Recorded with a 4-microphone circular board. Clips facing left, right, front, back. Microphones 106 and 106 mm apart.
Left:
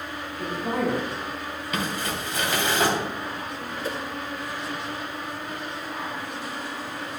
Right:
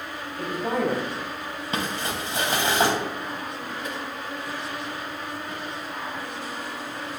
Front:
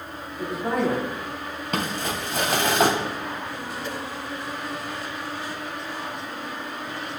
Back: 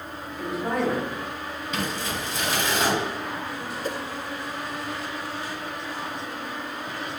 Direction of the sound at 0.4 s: 85° right.